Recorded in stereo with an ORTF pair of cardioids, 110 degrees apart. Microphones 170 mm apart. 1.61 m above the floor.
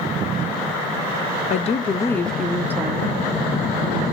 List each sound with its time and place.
1.5 s a woman speaking: 50° left, 0.6 m; by 4.0 s 35° right, 1.4 m